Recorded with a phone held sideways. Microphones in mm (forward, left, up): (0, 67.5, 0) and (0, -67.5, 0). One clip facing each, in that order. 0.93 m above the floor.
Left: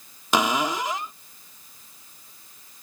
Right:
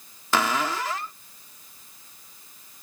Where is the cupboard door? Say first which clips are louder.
Left 2 dB; 15° left (ahead or behind).